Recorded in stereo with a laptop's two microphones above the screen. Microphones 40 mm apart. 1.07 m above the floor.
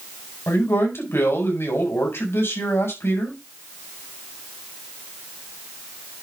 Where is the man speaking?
85° left, 5.5 m.